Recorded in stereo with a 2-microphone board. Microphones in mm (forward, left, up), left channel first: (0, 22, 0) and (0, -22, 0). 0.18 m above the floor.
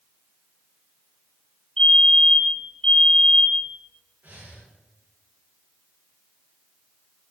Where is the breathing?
45° right (ahead or behind), 5.5 m.